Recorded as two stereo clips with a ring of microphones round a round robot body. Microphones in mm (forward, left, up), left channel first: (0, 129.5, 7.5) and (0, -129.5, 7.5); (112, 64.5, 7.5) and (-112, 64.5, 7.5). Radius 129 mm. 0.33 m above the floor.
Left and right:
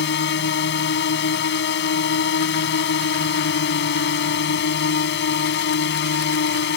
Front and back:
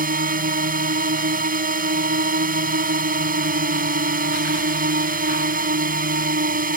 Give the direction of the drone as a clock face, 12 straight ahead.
8 o'clock.